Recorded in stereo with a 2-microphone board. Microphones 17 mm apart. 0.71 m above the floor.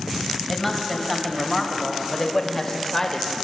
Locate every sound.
0.5 s a woman speaking: 5° left (ahead or behind), 4 m; by 3.3 s 20° left (ahead or behind), 3 m